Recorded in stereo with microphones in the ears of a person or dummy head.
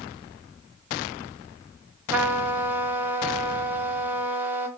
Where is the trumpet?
10° right (ahead or behind), 0.5 m.